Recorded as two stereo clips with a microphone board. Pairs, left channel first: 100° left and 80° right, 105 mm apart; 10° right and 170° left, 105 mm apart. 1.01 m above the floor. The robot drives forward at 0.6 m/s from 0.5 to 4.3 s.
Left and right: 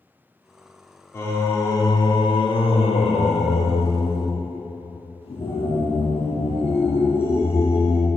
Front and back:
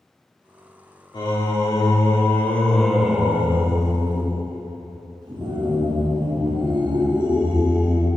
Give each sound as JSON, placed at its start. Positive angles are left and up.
{"t": 1.1, "sound": "singing", "azimuth_deg": 35, "distance_m": 1.5}